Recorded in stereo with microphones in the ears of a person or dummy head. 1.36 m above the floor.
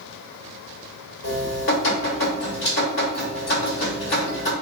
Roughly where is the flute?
No flute in this recording.